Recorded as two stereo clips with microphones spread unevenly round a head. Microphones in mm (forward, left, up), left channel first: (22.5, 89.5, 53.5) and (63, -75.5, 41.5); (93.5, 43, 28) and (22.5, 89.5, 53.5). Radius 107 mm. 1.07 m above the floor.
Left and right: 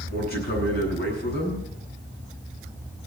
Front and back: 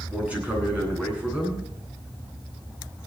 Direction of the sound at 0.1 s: 75° left.